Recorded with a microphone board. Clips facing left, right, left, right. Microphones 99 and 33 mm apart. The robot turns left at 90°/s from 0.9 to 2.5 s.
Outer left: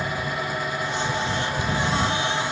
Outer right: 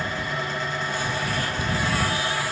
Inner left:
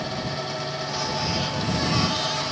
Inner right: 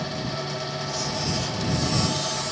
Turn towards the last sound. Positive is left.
No sound to turn to.